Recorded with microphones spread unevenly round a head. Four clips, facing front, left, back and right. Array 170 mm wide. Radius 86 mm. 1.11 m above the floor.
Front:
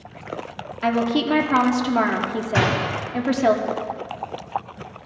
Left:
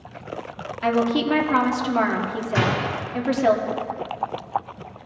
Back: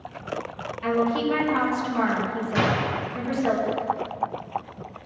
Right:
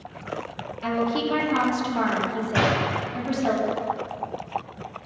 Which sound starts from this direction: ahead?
A door slam, at 2.5 s.